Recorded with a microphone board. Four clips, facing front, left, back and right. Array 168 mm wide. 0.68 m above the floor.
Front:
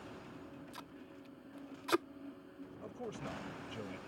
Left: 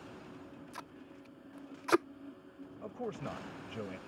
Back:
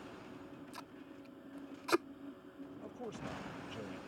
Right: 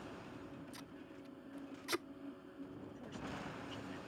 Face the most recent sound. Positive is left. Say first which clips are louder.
# left 12 dB, front 2 dB
turn(degrees=90)